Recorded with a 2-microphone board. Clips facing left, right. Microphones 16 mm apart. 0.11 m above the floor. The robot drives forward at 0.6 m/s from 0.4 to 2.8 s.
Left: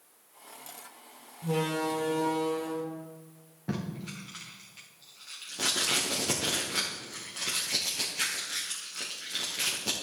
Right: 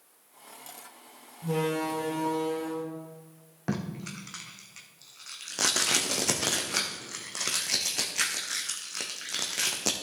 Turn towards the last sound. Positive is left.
turn(degrees=-80)